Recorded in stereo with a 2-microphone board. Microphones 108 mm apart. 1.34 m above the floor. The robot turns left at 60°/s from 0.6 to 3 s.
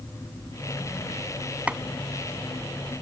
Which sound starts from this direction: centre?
Chopping, at 1.7 s.